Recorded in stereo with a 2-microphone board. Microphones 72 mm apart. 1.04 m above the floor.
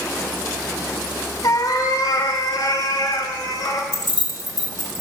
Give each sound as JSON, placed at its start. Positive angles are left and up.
{"t": 1.4, "sound": "a cat meowing", "side_deg": 55, "distance_m": 1.3}
{"t": 3.9, "sound": "keys jangling", "side_deg": 70, "distance_m": 1.6}